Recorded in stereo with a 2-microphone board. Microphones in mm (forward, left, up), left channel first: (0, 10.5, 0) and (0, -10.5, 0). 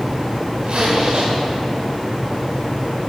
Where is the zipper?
70° right (ahead or behind), 2.5 m.